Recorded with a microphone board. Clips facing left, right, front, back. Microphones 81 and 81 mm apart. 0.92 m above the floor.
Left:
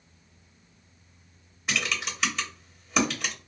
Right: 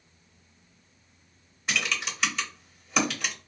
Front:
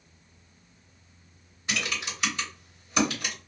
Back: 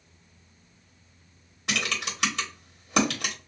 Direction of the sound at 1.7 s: 175° left.